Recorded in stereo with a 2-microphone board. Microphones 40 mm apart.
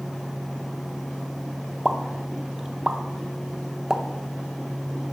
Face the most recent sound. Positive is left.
turn(degrees=-15)  # may be behind; listen again after turning